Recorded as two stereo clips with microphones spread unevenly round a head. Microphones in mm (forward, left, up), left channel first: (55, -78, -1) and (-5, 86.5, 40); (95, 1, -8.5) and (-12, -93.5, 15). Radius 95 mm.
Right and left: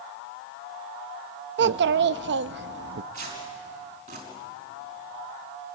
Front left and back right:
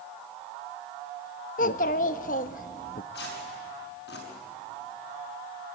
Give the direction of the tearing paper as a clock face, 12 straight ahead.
10 o'clock.